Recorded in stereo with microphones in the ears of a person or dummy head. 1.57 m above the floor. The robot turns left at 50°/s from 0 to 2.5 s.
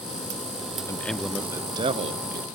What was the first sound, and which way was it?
A man speaking, 15° left.